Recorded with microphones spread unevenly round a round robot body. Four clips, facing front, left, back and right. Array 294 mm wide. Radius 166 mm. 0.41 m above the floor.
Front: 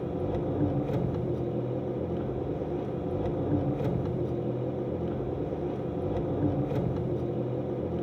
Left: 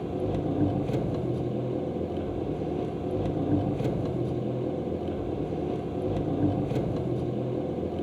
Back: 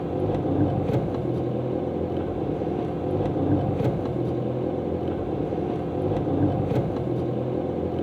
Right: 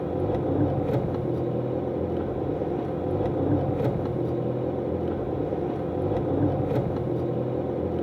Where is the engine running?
155° right, 0.7 m.